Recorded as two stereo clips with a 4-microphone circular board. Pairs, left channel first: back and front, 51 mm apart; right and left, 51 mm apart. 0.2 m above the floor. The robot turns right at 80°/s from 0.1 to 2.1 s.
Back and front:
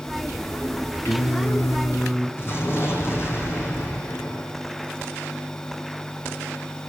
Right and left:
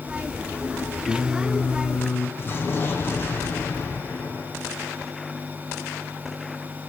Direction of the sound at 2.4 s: 140° right.